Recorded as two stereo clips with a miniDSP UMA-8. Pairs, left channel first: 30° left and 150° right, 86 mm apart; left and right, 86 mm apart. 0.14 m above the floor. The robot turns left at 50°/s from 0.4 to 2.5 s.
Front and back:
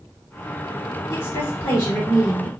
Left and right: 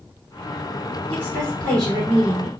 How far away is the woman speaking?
About 1.3 m.